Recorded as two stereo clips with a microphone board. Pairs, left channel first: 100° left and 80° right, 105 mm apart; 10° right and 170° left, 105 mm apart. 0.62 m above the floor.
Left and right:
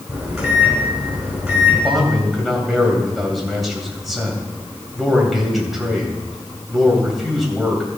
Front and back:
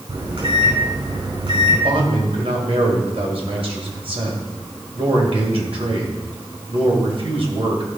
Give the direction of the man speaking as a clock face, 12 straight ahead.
6 o'clock.